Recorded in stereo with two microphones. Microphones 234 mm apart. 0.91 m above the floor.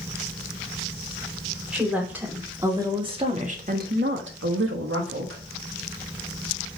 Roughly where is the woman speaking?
Centre.